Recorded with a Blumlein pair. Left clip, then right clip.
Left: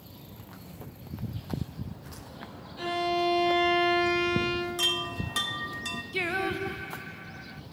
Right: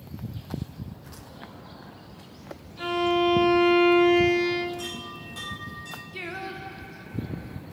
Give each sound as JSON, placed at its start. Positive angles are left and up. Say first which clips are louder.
{"t": 2.8, "sound": "a violin", "louder": "right 4 dB", "azimuth_deg": 0, "distance_m": 3.0}
{"t": 4.8, "sound": "a chime", "louder": "left 8 dB", "azimuth_deg": 55, "distance_m": 1.1}
{"t": 6.1, "sound": "singing", "louder": "left 6 dB", "azimuth_deg": 20, "distance_m": 0.5}